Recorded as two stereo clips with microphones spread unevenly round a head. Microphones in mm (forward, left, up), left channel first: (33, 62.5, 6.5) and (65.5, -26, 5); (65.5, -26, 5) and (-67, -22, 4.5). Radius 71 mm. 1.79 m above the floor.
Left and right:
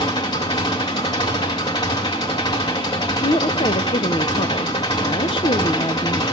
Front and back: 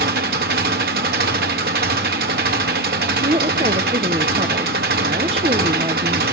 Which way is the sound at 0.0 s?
170° left.